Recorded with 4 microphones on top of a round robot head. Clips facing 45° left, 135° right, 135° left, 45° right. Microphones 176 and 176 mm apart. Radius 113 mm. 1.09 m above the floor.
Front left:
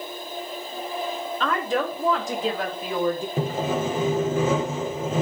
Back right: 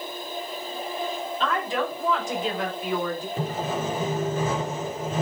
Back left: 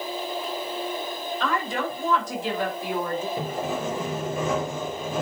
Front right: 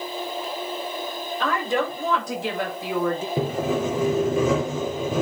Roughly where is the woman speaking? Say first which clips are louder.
Front left 2 dB, front right 4 dB; ahead.